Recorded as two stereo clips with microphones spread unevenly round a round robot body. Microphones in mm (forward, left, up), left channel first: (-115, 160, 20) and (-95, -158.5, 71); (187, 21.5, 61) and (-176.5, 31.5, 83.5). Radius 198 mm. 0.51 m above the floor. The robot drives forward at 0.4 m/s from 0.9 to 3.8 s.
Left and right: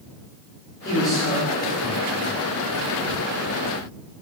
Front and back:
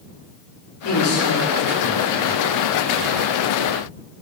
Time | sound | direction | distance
0.8 | a man speaking | 25° left | 1.7 m